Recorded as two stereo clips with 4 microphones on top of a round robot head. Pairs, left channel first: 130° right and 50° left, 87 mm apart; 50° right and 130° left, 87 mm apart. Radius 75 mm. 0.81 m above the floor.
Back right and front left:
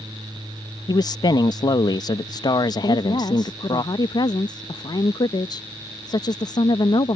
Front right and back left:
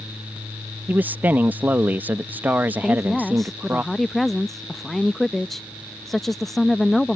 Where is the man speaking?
160° right.